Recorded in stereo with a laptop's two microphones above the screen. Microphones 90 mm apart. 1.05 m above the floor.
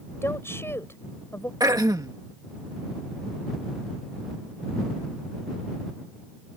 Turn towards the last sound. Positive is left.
turn(degrees=-45)  # may be behind; listen again after turning